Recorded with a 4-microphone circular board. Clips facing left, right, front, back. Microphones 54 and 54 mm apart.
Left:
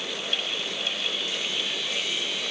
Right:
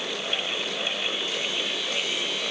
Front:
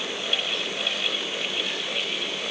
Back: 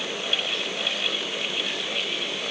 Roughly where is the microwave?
I don't hear a microwave.